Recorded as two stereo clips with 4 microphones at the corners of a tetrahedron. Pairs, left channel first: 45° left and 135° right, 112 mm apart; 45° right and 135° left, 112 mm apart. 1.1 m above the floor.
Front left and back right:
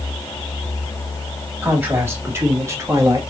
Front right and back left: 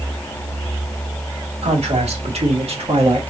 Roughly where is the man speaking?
Behind left.